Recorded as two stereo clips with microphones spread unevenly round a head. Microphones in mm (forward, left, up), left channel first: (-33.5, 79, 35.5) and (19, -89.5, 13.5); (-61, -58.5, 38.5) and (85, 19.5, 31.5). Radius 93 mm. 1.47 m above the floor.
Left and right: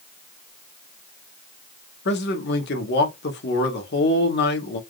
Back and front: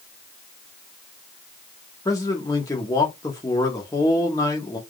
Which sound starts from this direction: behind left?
A man speaking, at 2.0 s.